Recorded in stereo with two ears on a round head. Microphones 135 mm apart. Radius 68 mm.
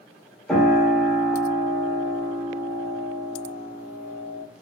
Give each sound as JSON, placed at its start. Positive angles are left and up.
{"t": 0.5, "sound": "a piano", "side_deg": 0, "distance_m": 1.0}